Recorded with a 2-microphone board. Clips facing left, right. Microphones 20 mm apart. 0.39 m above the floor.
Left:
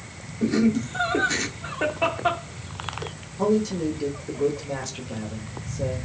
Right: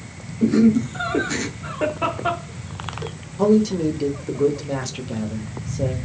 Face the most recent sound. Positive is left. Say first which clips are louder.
# right 5 dB
turn(degrees=-25)  # may be behind; listen again after turning